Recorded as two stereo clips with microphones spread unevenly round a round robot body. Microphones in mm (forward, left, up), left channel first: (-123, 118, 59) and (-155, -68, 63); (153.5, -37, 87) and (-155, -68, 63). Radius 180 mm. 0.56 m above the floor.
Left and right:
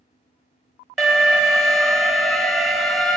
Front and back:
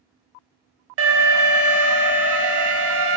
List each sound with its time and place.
1.0 s an alarm: 170° left, 0.8 m